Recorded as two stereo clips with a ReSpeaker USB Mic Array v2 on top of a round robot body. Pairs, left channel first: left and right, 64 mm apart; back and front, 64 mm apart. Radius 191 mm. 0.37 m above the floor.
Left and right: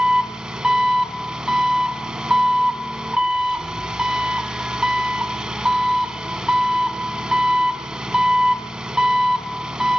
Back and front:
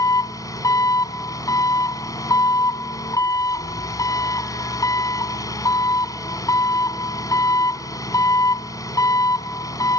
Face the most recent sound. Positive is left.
turn(degrees=-170)